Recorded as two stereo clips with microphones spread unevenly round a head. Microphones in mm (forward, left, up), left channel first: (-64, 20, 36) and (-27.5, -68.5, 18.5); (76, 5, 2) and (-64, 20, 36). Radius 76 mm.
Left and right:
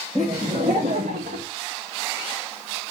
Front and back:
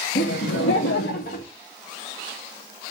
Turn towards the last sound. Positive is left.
turn(degrees=-60)